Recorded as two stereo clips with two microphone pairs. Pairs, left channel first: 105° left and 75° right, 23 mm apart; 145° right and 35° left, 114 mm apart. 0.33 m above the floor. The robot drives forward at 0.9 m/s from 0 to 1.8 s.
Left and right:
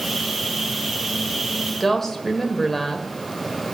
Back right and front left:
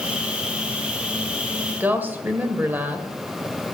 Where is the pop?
I don't hear a pop.